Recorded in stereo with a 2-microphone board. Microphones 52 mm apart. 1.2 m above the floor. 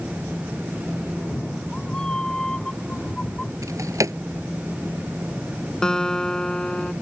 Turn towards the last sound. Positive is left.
turn(degrees=10)  # may be behind; listen again after turning